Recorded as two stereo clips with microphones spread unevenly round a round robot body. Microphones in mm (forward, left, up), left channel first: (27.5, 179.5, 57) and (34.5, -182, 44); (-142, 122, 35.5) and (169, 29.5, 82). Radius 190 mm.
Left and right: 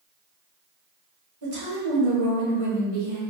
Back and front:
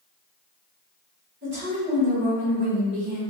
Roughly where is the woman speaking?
Right.